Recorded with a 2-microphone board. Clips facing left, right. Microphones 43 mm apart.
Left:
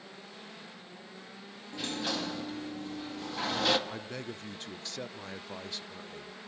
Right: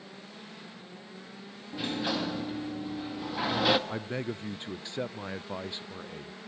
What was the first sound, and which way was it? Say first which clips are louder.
A sliding door: right 3 dB; 15° right (ahead or behind).